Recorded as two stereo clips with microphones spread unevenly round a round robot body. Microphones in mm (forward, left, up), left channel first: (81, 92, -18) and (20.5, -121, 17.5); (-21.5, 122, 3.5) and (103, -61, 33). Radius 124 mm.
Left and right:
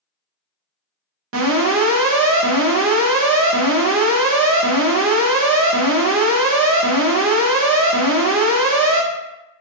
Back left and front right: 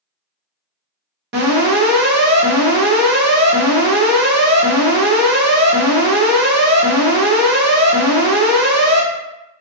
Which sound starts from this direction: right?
An alarm, at 1.3 s.